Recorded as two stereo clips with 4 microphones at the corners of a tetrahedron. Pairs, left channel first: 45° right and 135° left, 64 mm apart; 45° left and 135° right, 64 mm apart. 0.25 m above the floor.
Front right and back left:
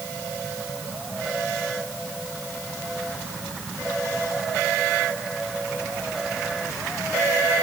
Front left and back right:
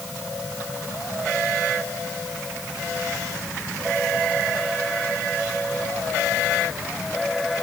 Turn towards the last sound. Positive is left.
No sound to turn to.